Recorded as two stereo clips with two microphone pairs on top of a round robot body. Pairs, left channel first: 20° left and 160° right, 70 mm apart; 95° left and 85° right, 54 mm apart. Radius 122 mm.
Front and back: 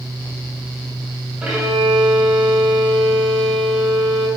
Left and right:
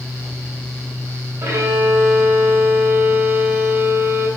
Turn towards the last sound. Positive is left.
turn(degrees=-85)